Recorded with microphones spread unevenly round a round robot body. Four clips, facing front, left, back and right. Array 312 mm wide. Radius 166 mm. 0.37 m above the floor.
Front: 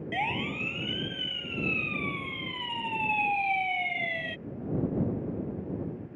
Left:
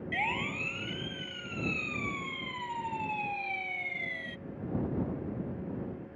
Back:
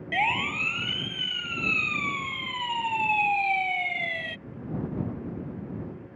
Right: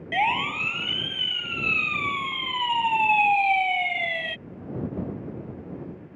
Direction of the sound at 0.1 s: 120° right.